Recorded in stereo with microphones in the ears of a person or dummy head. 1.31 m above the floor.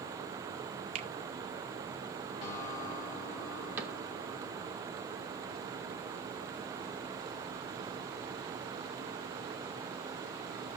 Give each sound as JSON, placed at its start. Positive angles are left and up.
{"t": 0.9, "sound": "a finger snap", "side_deg": -35, "distance_m": 0.6}
{"t": 2.4, "sound": "a guitar", "side_deg": 45, "distance_m": 2.5}
{"t": 3.8, "sound": "a cupboard door", "side_deg": -10, "distance_m": 0.9}